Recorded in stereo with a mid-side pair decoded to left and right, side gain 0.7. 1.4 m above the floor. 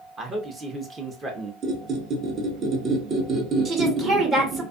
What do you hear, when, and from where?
0.2 s a man speaking: 25° right, 0.8 m
1.6 s a squeak: 45° right, 1.0 m
3.6 s a woman speaking: 35° right, 1.2 m